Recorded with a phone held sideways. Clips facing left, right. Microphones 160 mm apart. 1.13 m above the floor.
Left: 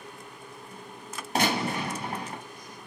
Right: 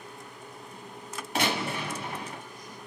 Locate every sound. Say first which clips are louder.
1.4 s a gunshot: left 3 dB; 40° left (ahead or behind), 1.1 m